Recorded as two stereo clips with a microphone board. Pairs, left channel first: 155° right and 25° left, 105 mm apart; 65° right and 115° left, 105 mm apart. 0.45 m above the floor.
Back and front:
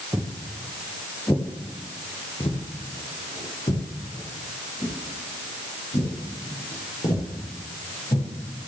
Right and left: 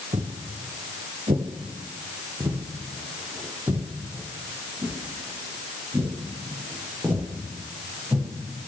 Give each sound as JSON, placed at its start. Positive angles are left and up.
{"t": 0.1, "sound": "footsteps", "azimuth_deg": 90, "distance_m": 2.0}